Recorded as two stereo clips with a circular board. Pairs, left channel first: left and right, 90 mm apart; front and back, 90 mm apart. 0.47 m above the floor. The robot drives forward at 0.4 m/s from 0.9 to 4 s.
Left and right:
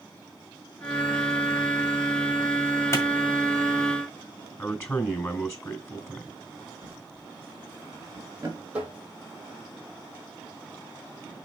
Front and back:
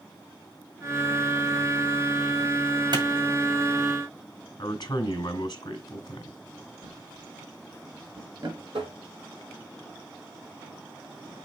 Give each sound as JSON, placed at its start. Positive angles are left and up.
{"t": 2.9, "sound": "a clap", "azimuth_deg": 150, "distance_m": 2.0}
{"t": 4.6, "sound": "a man speaking", "azimuth_deg": 35, "distance_m": 2.5}
{"t": 6.8, "sound": "a drawer", "azimuth_deg": -150, "distance_m": 3.5}
{"t": 8.7, "sound": "tapping", "azimuth_deg": -165, "distance_m": 3.0}